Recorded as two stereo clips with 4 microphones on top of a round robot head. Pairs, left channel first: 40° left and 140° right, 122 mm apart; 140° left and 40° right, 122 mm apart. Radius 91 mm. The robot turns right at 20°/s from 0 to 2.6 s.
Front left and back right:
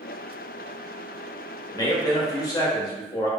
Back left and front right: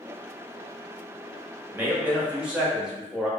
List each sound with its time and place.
1.7 s a man speaking: 20° left, 0.9 m; by 3.3 s 35° left, 0.9 m